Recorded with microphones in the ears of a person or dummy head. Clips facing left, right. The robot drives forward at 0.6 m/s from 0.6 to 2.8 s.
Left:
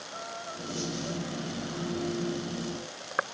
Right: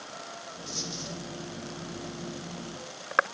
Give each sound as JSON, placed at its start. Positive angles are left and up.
{"t": 0.7, "sound": "a dropped coin", "side_deg": -60, "distance_m": 8.0}